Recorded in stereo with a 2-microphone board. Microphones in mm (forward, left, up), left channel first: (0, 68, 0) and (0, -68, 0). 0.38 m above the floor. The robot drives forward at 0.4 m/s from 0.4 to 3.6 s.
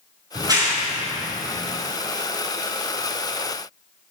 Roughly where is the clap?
Right.